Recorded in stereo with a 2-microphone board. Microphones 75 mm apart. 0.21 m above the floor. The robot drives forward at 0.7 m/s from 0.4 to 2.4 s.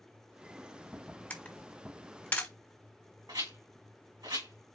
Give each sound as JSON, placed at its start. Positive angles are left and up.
{"t": 1.3, "sound": "a camera shutter", "side_deg": 20, "distance_m": 1.6}
{"t": 3.3, "sound": "a rattle", "side_deg": -65, "distance_m": 4.0}